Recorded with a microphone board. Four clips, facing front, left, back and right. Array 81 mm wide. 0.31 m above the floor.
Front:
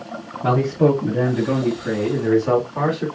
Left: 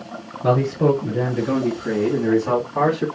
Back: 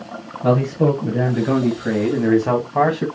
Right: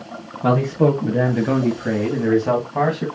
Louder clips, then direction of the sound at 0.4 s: Right 1 dB, even; 95° right.